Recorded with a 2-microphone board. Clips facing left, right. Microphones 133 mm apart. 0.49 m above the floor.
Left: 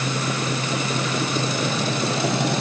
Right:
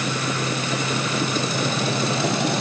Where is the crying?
I don't hear crying.